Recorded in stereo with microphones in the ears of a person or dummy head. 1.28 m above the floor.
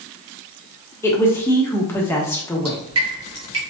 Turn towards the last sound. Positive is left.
turn(degrees=-30)  # may be behind; listen again after turning